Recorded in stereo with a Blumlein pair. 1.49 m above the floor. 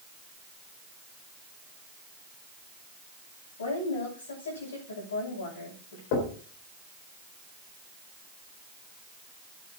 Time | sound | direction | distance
3.6 | a woman speaking | 65° left | 9.5 m
6.1 | knocking | 45° left | 4 m